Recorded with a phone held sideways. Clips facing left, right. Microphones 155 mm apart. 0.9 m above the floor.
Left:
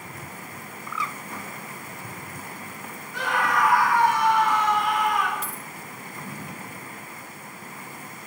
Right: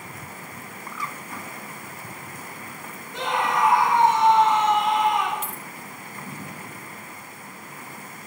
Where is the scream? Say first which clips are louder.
Right 1 dB; 20° right (ahead or behind), 1.3 m.